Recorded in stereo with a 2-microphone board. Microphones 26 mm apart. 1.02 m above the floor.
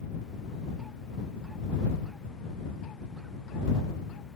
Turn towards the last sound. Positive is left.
No sound to turn to.